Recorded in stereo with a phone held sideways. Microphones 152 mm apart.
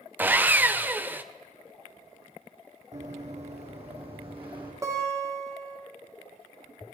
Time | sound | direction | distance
0.2 | sawing | 15° right (ahead or behind) | 0.5 m
2.9 | running footsteps | 55° right (ahead or behind) | 3 m
4.8 | a guitar | 25° right (ahead or behind) | 2.5 m